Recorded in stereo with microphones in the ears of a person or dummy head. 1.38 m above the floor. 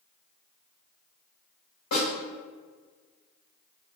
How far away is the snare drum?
About 1.8 m.